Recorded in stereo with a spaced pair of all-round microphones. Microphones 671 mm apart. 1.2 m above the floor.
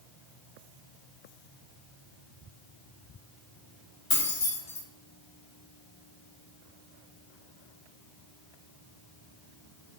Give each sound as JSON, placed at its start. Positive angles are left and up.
{"t": 4.1, "sound": "keys jangling", "side_deg": 60, "distance_m": 1.1}